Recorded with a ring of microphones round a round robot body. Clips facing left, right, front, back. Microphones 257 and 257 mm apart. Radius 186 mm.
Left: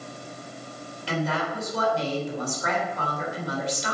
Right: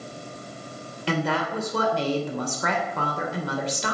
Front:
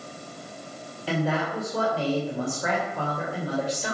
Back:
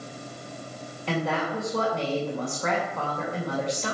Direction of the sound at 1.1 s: 85° right.